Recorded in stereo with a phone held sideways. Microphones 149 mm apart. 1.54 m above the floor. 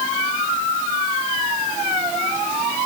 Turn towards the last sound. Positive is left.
No sound to turn to.